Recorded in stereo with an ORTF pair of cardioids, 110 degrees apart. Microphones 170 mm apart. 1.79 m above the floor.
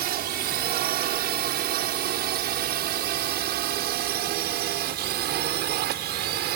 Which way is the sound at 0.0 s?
65° right.